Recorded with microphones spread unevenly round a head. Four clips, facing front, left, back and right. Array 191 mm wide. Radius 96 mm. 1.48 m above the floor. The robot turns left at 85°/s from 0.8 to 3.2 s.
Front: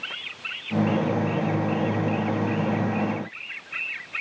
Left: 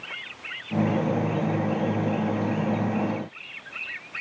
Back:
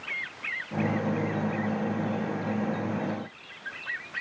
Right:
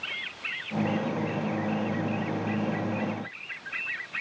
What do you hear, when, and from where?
Only background noise.